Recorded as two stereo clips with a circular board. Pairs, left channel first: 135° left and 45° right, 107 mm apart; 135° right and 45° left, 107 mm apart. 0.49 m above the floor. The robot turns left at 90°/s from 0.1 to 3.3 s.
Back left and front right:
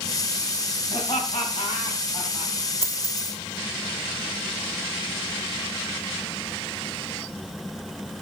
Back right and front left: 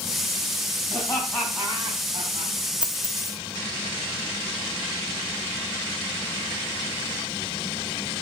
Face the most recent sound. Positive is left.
turn(degrees=-75)